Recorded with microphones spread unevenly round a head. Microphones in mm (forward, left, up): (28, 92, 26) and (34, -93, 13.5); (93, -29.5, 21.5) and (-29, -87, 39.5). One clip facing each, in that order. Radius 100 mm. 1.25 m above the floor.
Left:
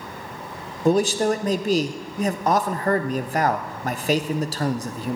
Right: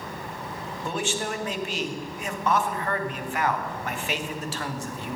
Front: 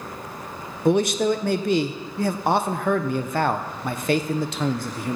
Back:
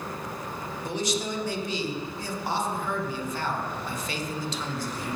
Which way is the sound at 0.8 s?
40° left.